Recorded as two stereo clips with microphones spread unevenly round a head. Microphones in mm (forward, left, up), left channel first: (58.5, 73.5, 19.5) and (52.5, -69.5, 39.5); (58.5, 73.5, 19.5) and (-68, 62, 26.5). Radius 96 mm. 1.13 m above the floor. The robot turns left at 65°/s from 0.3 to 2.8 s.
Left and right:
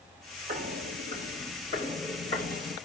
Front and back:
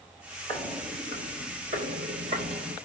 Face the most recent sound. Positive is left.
turn(degrees=115)